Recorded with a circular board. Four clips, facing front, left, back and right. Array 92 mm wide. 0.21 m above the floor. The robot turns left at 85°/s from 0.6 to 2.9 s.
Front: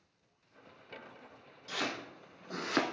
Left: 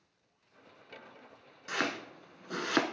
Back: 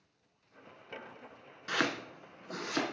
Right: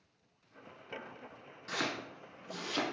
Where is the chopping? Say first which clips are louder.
Left 3 dB, back 5 dB; 165° left, 0.9 m; by 2.8 s 70° left, 0.9 m.